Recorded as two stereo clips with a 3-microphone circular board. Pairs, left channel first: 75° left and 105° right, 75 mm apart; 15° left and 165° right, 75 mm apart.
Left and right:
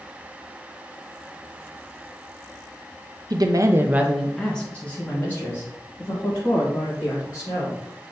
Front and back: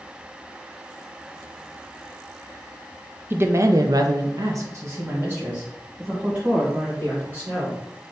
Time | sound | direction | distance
3.3 | a woman speaking | 110° right | 0.6 m